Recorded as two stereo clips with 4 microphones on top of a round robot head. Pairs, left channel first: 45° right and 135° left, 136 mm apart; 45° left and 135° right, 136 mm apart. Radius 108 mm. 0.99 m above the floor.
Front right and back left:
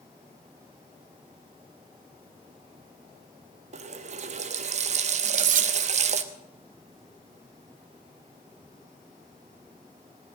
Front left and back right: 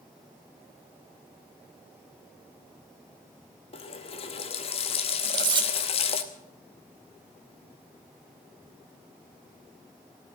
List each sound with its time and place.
3.7 s a running tap: 95° left, 0.9 m
5.2 s cutlery clinking: 165° left, 0.9 m